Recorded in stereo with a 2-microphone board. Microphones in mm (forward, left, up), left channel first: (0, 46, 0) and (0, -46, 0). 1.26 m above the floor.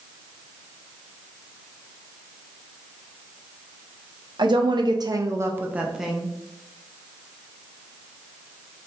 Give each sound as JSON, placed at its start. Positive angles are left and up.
{"t": 4.4, "sound": "a woman speaking", "side_deg": -55, "distance_m": 0.8}